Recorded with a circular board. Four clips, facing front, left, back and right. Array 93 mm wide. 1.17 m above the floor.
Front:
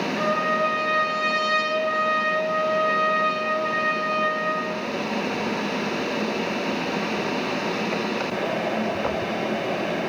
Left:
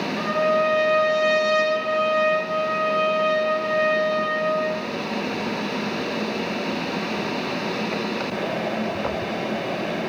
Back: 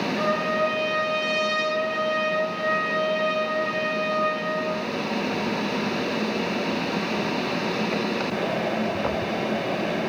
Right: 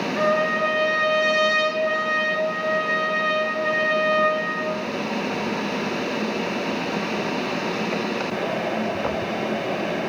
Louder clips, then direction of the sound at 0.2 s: Left 1 dB, front 1 dB; 80° right.